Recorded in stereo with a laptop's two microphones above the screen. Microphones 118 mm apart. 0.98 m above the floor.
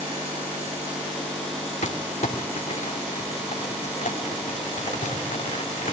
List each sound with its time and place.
1.8 s crumpling: 75° left (ahead or behind), 2.5 m